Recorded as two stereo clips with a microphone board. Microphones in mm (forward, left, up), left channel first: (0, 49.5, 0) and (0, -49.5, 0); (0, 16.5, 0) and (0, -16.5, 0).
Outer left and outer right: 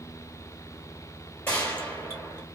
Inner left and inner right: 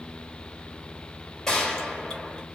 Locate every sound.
1.5 s a gunshot: 20° left (ahead or behind), 1.8 m